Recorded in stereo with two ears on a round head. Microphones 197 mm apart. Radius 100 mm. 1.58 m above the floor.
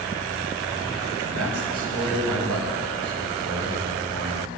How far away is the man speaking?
About 8 m.